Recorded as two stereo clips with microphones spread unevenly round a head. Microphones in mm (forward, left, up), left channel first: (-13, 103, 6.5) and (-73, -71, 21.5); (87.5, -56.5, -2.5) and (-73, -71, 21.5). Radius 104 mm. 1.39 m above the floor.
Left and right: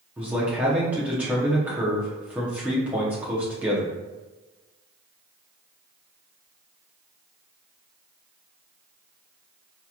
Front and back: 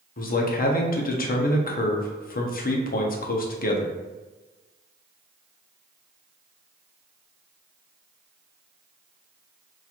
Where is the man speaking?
25° right, 0.7 m.